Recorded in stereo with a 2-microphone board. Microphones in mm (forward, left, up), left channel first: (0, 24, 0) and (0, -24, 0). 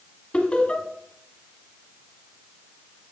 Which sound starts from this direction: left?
Laughter, at 0.3 s.